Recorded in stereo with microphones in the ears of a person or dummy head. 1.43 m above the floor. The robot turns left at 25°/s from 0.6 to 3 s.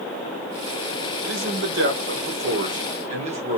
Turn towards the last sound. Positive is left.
turn(degrees=-140)